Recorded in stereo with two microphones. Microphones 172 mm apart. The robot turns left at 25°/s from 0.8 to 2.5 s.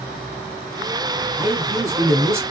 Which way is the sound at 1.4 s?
20° right (ahead or behind).